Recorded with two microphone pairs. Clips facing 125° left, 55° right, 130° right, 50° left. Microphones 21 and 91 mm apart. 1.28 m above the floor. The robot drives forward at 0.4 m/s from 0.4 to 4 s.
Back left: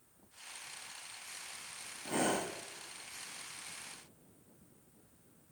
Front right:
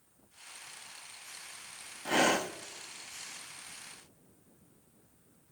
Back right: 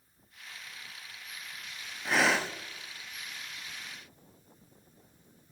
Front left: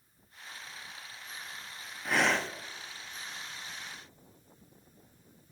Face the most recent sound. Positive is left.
turn(degrees=-130)